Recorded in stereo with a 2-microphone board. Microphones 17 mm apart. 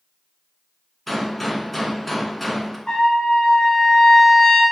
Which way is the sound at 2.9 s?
60° left (ahead or behind).